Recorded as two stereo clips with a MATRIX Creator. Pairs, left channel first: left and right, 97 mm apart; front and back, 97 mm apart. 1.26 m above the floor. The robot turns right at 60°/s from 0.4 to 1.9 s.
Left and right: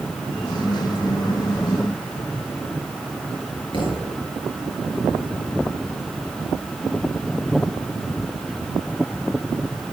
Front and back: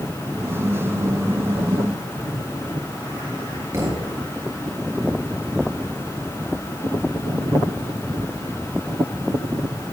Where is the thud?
120° left, 5 m.